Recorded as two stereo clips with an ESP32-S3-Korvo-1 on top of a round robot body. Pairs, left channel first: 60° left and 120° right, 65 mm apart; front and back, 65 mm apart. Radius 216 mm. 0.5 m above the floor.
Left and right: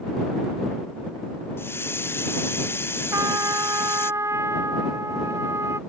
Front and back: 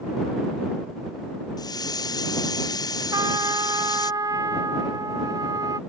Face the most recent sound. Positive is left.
turn(degrees=-160)